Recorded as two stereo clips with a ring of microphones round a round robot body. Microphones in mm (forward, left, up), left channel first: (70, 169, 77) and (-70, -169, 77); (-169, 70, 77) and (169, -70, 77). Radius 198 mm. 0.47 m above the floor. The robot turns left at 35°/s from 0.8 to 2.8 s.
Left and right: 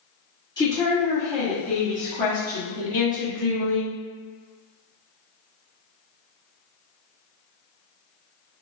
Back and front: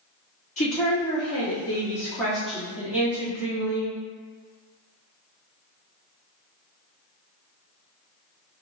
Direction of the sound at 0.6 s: 125° left.